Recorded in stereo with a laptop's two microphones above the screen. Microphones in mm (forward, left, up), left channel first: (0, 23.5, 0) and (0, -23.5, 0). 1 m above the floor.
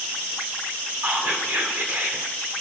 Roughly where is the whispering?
Right.